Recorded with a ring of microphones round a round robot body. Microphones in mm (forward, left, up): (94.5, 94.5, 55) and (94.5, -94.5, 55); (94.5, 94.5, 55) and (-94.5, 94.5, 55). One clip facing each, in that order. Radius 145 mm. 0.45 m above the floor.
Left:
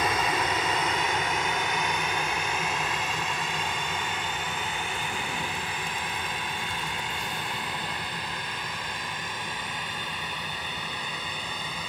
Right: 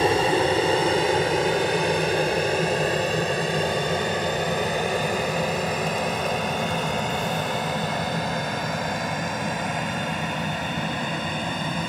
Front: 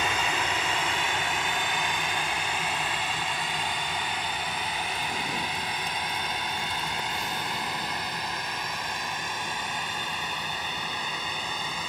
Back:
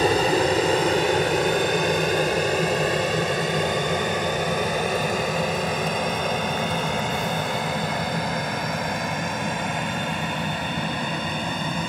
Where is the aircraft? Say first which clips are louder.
Right 8 dB, back 12 dB; 140° right; by 11.9 s 135° right.